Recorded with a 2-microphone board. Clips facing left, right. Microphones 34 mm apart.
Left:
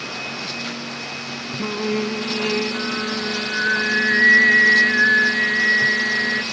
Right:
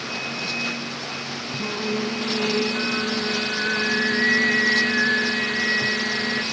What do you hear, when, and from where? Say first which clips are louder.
1.6 s singing: left 3 dB; 30° left (ahead or behind), 0.6 m